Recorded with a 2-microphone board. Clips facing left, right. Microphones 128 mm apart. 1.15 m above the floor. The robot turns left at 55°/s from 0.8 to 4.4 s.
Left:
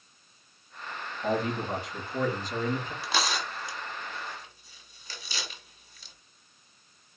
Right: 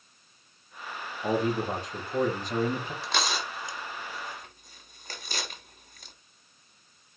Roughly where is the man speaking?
Ahead.